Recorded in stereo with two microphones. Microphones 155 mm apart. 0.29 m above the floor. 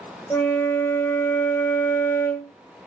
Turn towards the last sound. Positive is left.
turn(degrees=15)  # may be behind; listen again after turning